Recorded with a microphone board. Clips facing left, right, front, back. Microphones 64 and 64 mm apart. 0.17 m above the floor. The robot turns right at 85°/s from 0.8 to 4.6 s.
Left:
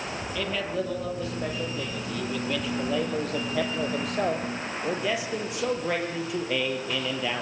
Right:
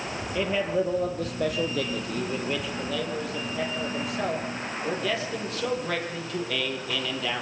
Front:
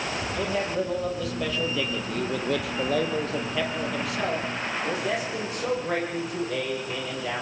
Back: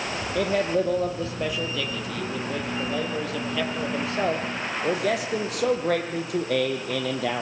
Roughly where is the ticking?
I don't hear ticking.